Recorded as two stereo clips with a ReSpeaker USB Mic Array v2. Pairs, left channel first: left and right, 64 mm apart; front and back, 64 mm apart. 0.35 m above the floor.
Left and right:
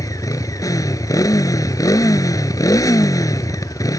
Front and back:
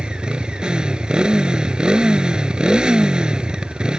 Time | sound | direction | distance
0.0 | a motorcycle | 105° left | ?